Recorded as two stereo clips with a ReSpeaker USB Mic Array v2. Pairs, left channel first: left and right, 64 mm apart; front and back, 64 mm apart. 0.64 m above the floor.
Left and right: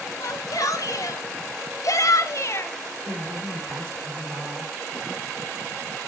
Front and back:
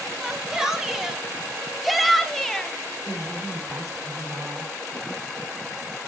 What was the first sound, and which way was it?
A shout, 100° left.